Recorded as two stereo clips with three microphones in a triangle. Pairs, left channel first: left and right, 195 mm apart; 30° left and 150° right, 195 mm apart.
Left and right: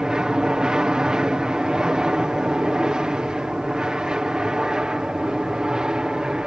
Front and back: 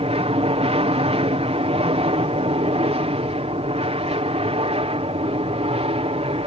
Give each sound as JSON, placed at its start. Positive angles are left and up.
{"t": 0.0, "sound": "an aircraft", "azimuth_deg": -175}